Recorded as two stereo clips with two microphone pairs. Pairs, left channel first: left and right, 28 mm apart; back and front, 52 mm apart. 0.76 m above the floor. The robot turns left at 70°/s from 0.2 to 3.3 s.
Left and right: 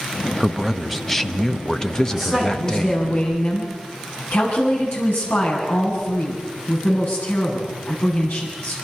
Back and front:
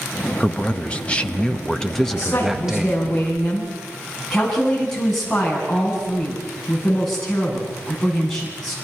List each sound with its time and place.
0.4 s a man speaking: 140° right, 1.1 m; by 3.0 s 35° left, 1.1 m
2.1 s a woman speaking: 175° right, 8.5 m; by 8.8 s 100° left, 8.5 m